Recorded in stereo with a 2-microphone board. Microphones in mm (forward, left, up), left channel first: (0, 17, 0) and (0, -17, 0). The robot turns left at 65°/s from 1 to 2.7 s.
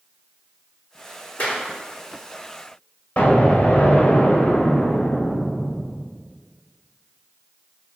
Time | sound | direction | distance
1.4 | a clap | 50° left (ahead or behind) | 4 m
3.2 | an explosion | 40° left (ahead or behind) | 3.5 m